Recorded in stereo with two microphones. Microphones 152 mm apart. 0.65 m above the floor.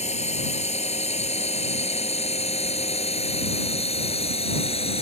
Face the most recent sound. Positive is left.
turn(degrees=40)  # may be behind; listen again after turning